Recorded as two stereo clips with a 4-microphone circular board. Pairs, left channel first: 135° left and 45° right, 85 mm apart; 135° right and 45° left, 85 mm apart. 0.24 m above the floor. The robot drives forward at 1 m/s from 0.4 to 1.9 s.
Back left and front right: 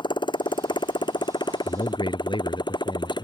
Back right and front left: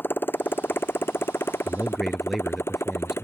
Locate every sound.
0.0 s a motorcycle: 160° left; by 3.2 s 165° left
1.6 s a man speaking: 130° left; by 3.2 s 135° left